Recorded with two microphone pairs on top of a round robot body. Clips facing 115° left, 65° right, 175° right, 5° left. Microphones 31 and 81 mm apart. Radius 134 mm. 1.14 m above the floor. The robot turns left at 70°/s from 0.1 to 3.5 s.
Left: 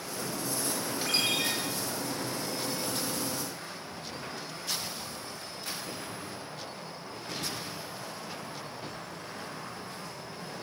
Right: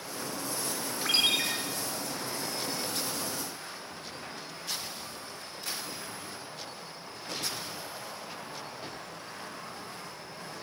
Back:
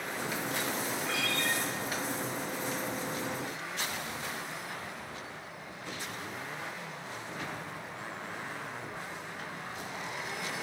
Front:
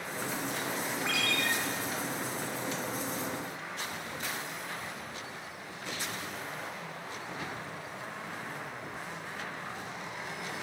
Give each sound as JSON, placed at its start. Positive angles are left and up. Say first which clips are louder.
{"t": 1.1, "sound": "a ringtone", "louder": "right 3 dB, front 3 dB", "azimuth_deg": 15, "distance_m": 1.0}